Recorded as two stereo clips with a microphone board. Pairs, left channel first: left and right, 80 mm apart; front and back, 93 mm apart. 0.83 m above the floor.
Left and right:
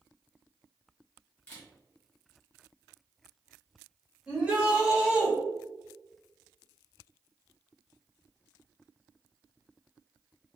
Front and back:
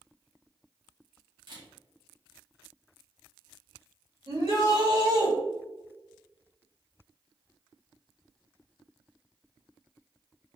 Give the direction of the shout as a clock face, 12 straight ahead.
5 o'clock.